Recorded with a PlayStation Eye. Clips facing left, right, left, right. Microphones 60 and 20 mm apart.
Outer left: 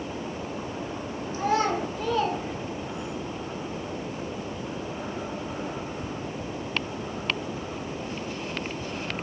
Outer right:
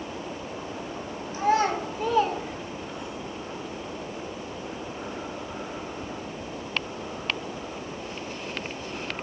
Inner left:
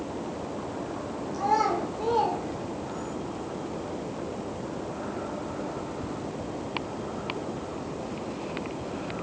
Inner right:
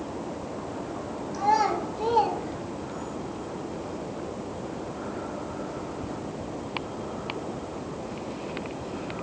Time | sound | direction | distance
1.3 | a child speaking | 25° right (ahead or behind) | 1.5 m